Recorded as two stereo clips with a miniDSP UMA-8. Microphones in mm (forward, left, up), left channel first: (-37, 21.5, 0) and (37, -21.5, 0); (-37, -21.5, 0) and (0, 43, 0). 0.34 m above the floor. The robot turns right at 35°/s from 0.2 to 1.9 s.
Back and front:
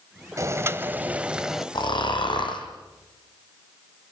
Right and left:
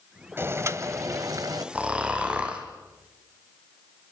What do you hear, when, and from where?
0.4 s boiling: 10° left, 1.1 m; by 1.6 s 55° left, 1.1 m
1.8 s snoring: 130° left, 3 m; by 2.7 s 135° left, 3 m